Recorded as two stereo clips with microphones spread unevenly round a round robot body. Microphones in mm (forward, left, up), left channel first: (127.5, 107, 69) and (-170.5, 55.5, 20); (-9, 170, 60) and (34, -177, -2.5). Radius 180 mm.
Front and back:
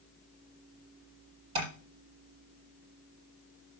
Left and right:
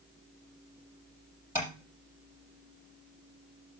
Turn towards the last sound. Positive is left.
turn(degrees=-170)